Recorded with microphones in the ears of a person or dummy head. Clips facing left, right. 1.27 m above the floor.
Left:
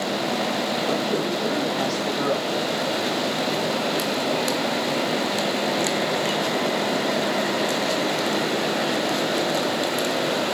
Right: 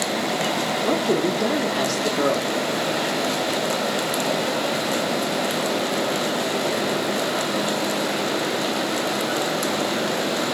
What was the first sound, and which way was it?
A woman speaking, 65° right (ahead or behind).